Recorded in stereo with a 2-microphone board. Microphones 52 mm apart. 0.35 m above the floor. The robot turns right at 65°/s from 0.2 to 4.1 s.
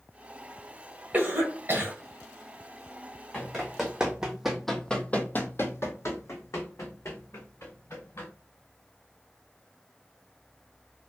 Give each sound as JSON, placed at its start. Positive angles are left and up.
{"t": 1.1, "sound": "a cough", "side_deg": -35, "distance_m": 1.2}
{"t": 3.3, "sound": "running footsteps", "side_deg": 20, "distance_m": 1.1}